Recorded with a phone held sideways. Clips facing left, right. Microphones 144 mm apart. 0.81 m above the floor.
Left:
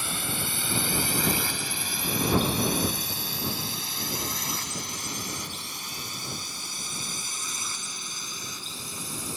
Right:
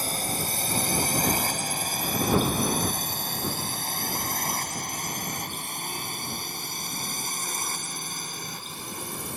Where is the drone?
40° right (ahead or behind); by 9.4 s 55° right (ahead or behind).